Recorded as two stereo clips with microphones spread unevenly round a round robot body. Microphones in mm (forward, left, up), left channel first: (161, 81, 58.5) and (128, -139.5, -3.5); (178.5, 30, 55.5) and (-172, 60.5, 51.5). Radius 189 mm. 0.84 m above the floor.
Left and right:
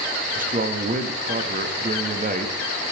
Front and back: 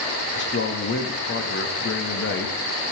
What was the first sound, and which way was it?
A man speaking, 60° right.